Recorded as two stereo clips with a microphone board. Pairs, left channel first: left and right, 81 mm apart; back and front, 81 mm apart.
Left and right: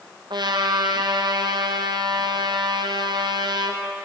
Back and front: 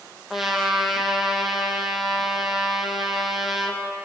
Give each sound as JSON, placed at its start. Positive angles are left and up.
{"t": 0.3, "sound": "a trumpet", "azimuth_deg": -90, "distance_m": 2.5}